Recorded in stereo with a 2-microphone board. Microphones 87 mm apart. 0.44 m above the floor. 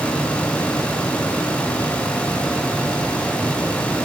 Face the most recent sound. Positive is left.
No sound to turn to.